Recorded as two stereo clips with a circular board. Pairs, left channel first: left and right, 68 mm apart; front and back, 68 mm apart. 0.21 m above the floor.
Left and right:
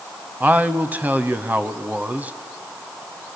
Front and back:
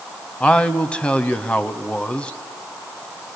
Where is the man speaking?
55° right, 1.0 m.